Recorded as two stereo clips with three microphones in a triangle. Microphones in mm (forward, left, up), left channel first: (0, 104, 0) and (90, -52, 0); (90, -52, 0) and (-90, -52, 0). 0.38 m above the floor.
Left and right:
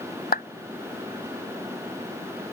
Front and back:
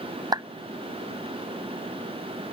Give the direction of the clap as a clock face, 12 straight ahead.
8 o'clock.